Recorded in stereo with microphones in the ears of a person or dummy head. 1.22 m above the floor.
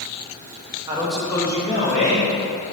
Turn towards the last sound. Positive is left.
turn(degrees=55)  # may be behind; listen again after turning